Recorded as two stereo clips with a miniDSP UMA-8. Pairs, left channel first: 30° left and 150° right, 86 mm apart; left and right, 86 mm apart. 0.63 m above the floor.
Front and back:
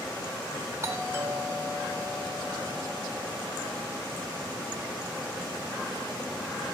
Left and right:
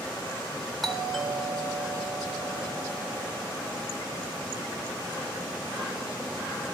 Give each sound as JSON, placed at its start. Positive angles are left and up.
{"t": 0.8, "sound": "a doorbell", "azimuth_deg": 180, "distance_m": 1.2}